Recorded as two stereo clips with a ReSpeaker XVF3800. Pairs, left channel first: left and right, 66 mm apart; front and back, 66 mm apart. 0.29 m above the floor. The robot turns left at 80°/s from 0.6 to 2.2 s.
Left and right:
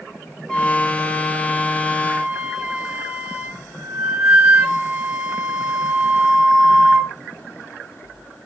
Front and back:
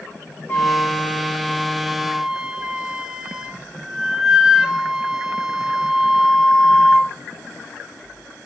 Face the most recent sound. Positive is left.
turn(degrees=-115)